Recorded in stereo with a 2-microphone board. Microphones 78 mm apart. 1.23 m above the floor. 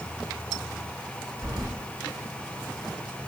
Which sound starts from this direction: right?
Keys jangling, at 1.4 s.